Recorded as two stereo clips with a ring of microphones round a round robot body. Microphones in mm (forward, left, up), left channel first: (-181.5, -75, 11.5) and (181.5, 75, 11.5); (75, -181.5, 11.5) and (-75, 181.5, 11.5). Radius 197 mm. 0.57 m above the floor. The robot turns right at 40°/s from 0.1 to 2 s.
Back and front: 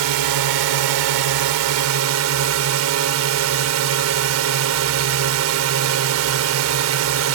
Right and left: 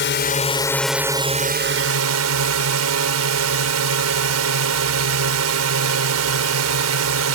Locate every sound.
0.0 s a drone: 10° right; by 7.3 s 65° left